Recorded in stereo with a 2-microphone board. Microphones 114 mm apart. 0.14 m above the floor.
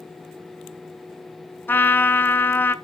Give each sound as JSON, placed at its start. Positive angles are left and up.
{"t": 1.7, "sound": "a trumpet", "side_deg": 20, "distance_m": 0.7}